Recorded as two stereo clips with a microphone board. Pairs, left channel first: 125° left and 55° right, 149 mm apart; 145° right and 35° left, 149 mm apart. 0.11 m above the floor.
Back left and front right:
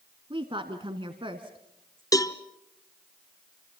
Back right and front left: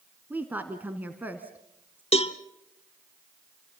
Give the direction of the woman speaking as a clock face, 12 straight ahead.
1 o'clock.